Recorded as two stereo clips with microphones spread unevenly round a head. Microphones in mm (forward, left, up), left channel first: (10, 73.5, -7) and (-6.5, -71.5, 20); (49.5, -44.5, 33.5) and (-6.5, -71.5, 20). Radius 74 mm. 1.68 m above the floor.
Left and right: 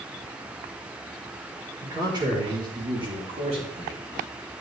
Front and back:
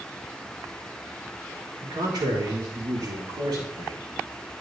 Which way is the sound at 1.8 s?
160° right.